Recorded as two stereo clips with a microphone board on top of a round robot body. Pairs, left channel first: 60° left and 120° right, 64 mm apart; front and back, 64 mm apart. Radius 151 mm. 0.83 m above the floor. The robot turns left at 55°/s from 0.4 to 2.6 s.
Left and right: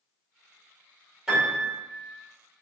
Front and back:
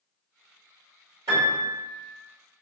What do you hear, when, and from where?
1.3 s a piano: 160° left, 1.9 m; by 1.8 s 130° left, 1.9 m